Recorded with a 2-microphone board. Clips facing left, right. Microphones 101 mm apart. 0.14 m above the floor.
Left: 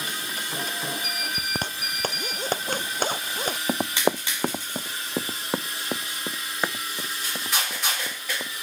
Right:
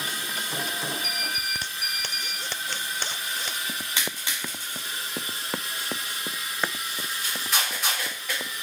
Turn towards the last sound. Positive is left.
turn(degrees=5)  # may be behind; listen again after turning